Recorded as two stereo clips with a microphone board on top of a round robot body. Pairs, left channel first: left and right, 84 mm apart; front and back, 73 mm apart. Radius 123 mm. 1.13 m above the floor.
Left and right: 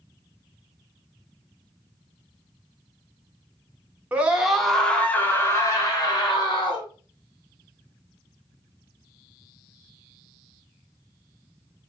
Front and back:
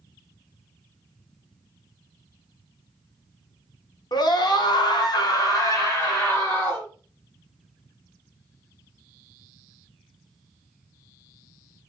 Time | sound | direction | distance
4.1 | a scream | 15° right | 1.0 m